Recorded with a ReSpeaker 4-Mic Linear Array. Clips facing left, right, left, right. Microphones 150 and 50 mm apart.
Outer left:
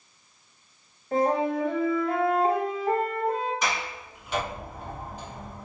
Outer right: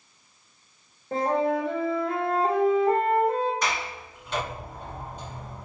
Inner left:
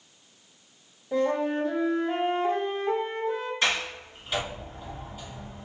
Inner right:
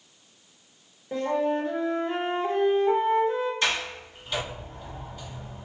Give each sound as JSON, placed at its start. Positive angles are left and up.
{"t": 1.1, "sound": "a flute", "side_deg": -25, "distance_m": 1.5}
{"t": 3.6, "sound": "a sliding door", "side_deg": 10, "distance_m": 1.7}